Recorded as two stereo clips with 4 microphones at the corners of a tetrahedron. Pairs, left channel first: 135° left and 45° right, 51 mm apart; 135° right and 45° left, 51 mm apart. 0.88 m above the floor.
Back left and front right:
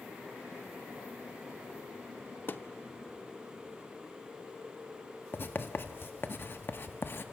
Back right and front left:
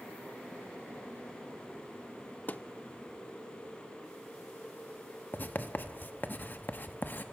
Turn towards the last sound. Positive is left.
turn(degrees=175)